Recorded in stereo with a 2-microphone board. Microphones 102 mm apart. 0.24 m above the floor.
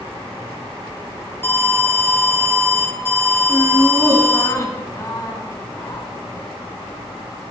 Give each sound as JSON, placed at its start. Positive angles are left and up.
{"t": 1.4, "sound": "an alarm", "side_deg": 25, "distance_m": 2.5}
{"t": 3.5, "sound": "laughter", "side_deg": 30, "distance_m": 2.0}